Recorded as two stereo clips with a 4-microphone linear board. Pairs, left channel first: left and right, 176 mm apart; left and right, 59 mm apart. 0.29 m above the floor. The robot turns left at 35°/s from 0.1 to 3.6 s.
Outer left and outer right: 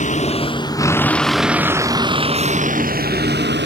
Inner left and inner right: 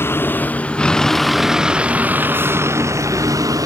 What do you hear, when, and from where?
0.0 s a vehicle: 45° left; by 3.6 s 80° right